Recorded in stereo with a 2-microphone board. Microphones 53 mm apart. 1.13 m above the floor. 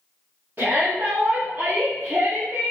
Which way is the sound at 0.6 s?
40° right (ahead or behind).